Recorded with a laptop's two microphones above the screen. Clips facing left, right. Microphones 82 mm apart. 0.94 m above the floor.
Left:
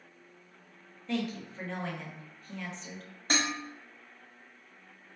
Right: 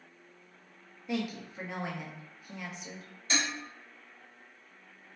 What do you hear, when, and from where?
1.1 s a woman speaking: 10° right (ahead or behind), 0.7 m
3.3 s dishes clattering: 50° left (ahead or behind), 0.8 m